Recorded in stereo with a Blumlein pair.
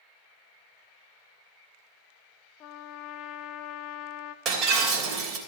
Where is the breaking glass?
30° right, 3 m.